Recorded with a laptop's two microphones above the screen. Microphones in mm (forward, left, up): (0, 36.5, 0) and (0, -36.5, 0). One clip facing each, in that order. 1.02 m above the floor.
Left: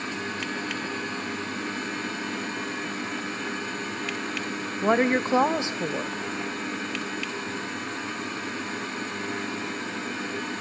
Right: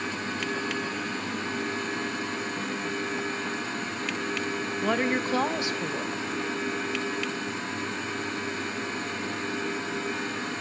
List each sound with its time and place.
4.8 s a woman speaking: 25° left (ahead or behind), 0.7 m